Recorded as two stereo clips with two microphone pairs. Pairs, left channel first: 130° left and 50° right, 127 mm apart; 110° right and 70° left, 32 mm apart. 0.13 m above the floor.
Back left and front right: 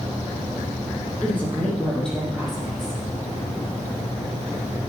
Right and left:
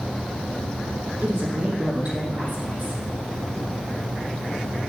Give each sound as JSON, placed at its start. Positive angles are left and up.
{"t": 1.2, "sound": "a woman speaking", "azimuth_deg": 50, "distance_m": 4.0}